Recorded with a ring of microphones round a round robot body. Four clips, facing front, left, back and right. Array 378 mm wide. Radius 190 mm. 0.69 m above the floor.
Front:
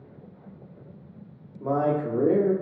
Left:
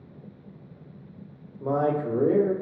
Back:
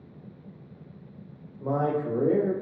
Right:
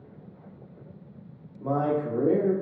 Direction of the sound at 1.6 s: 35° left.